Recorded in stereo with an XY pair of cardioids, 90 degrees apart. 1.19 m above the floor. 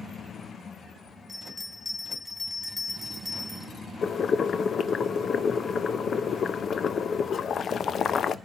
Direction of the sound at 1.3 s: 5° left.